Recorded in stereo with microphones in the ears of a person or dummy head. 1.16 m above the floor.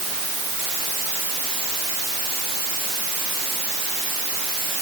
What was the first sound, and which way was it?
Only background noise.